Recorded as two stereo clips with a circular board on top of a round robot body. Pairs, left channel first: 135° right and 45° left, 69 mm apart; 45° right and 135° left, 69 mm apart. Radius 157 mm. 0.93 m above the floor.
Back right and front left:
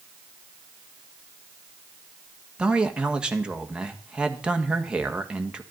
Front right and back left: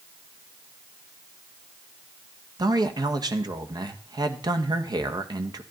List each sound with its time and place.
2.6 s a man speaking: 120° left, 2.0 m